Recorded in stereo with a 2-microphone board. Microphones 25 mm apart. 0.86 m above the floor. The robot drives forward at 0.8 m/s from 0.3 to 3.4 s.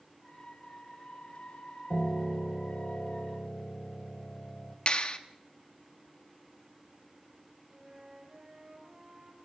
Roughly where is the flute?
Right.